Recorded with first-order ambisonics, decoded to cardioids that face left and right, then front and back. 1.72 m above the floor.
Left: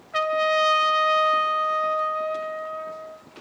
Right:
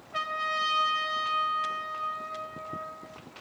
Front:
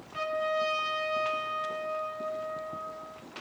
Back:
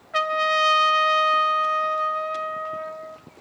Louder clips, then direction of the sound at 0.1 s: Left 8 dB, back 9 dB; 150° left.